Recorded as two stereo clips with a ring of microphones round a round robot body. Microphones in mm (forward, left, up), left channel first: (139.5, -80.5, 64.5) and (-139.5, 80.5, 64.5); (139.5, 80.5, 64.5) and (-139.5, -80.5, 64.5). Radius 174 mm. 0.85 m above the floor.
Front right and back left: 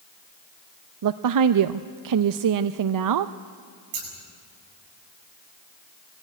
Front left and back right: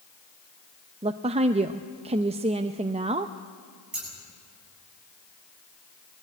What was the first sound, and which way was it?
A woman speaking, 140° left.